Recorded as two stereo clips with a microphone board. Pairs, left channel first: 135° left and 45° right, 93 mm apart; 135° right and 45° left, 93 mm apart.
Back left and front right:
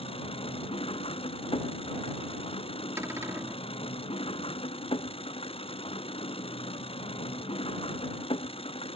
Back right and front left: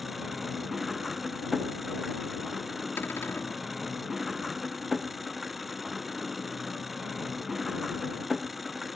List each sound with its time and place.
0.0 s an engine running: 135° left
3.0 s a cupboard door: 85° right